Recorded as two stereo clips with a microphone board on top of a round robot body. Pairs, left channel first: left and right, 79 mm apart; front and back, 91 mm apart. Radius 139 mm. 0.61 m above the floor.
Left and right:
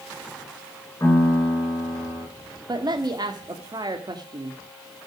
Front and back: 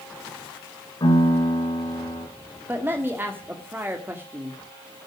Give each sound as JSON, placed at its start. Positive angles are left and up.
{"t": 1.0, "sound": "a piano", "azimuth_deg": 35, "distance_m": 8.5}
{"t": 2.7, "sound": "a man speaking", "azimuth_deg": -115, "distance_m": 1.9}